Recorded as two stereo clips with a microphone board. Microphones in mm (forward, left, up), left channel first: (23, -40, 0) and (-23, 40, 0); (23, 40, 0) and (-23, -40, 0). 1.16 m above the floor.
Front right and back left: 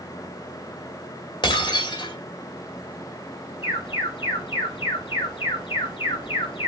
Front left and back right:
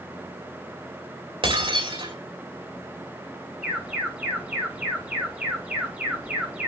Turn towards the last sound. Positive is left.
turn(degrees=-40)